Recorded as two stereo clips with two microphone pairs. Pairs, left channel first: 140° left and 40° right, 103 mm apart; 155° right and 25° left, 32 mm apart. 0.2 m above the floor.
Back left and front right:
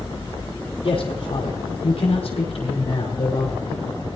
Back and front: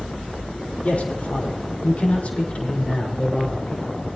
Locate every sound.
0.8 s a man speaking: 160° left, 6.5 m; by 4.0 s 150° left, 8 m